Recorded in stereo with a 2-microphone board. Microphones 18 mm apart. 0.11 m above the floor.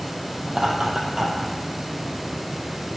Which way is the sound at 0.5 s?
40° right (ahead or behind).